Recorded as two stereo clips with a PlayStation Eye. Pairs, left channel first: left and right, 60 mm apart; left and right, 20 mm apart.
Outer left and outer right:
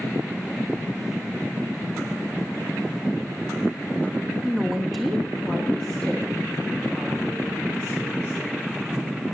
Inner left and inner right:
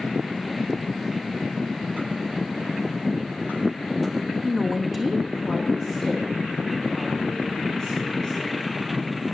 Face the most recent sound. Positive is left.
turn(degrees=15)  # may be behind; listen again after turning